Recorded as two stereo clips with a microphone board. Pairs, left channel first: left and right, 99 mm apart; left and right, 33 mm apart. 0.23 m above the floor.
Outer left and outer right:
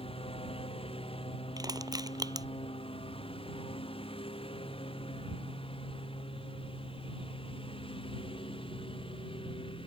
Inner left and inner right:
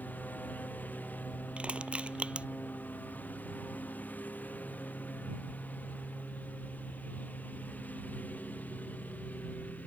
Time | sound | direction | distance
0.0 | a lawn mower | 70° left (ahead or behind) | ?
1.6 | crushing | 40° right (ahead or behind) | ?